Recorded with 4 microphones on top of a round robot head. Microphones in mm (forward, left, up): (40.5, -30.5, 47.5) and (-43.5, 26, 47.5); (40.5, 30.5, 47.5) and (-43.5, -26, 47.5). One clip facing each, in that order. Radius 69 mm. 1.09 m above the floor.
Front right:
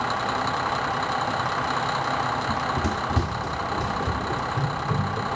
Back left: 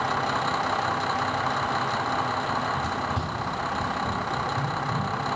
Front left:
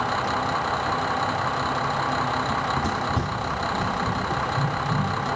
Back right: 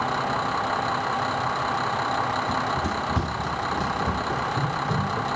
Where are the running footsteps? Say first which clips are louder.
Front right 1 dB, front left 1 dB; 55° right, 1.2 m; by 5.3 s 95° right, 3.5 m.